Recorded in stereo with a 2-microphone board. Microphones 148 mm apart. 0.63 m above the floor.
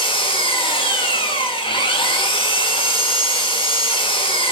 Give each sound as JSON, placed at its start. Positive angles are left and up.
{"t": 0.0, "sound": "an engine running", "side_deg": 35, "distance_m": 1.5}